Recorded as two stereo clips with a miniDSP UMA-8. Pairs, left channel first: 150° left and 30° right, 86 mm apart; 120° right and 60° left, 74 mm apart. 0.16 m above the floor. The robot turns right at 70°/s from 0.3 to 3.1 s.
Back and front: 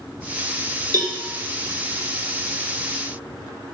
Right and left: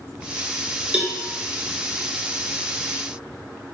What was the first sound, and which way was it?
A cowbell, 10° right.